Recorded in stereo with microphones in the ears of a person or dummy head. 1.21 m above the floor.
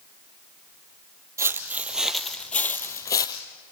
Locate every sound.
1.4 s footsteps: 15° right (ahead or behind), 2 m; by 3.4 s 25° left (ahead or behind), 2.5 m